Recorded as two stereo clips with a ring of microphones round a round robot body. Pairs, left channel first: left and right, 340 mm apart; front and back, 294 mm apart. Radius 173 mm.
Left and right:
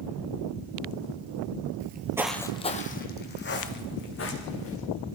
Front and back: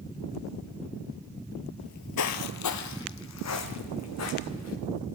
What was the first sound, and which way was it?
Footsteps, 65° right.